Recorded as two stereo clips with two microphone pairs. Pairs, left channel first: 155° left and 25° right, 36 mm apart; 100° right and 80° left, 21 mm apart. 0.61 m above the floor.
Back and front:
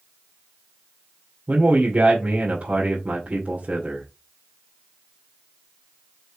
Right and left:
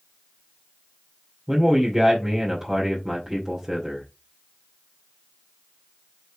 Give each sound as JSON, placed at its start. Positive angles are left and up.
{"t": 1.5, "sound": "a man speaking", "azimuth_deg": 15, "distance_m": 2.5}